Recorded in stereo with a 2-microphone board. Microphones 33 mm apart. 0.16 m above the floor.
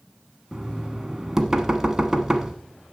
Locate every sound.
0.5 s knocking: 10° right (ahead or behind), 1.2 m